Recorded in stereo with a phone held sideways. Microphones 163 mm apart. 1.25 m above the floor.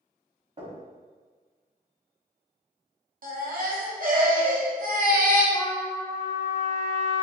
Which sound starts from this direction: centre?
A trumpet, at 5.5 s.